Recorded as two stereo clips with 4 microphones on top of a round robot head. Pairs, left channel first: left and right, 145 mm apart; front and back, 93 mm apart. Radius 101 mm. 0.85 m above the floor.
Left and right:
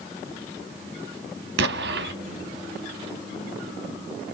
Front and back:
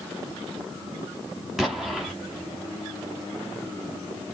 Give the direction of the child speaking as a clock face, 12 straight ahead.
No child speaking in this recording.